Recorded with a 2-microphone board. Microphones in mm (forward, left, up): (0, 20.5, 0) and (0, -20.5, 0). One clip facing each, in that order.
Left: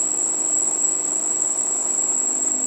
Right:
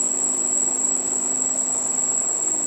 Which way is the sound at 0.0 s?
50° left (ahead or behind).